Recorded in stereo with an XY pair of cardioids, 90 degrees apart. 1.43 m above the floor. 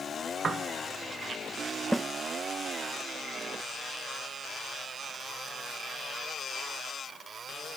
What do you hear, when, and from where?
0.4 s a piano: 45° right
1.9 s a snare drum: 10° right